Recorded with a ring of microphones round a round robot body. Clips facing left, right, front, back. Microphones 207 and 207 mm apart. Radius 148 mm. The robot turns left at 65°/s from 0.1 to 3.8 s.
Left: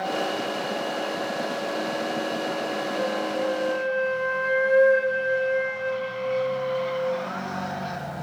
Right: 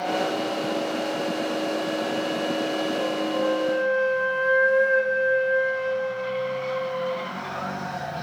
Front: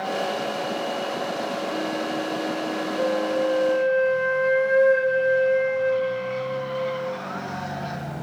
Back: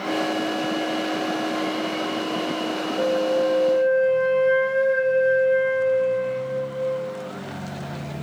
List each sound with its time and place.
3.0 s a flute: 30° left, 2 m; by 7.2 s 25° right, 2 m